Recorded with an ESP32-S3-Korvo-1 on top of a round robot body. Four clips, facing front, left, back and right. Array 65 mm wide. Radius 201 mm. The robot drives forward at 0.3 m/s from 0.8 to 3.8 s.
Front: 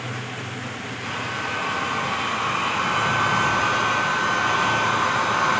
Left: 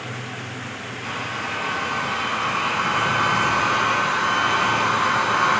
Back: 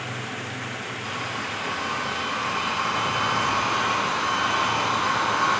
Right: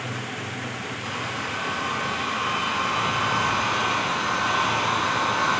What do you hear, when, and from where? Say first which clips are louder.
1.0 s a hair dryer: left 3 dB, front 4 dB; 60° left, 2 m; by 5.6 s 80° left, 1.9 m